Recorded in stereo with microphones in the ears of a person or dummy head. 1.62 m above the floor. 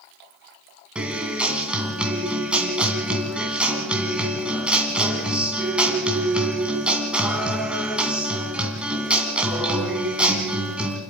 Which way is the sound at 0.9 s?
5° right (ahead or behind).